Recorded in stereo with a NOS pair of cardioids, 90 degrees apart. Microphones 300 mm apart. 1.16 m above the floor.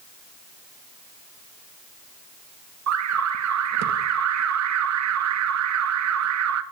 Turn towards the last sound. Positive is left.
turn(degrees=-65)